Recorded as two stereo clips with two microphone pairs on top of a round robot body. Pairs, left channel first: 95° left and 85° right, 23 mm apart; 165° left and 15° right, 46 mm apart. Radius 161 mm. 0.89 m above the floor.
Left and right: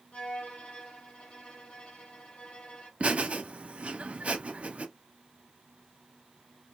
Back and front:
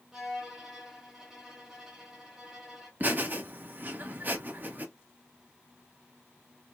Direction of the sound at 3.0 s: 65° right.